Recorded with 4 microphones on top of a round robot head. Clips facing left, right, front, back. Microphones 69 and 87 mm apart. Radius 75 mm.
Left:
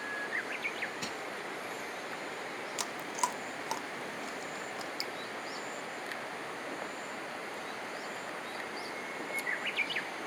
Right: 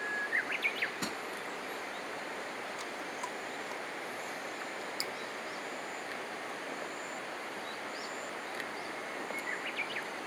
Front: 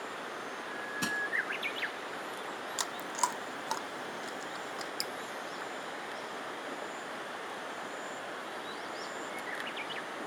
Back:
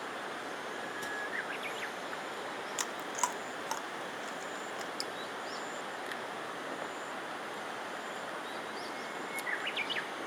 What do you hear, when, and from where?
1.0 s crushing: 30° right
2.8 s chewing: 70° left
5.0 s dripping: 35° right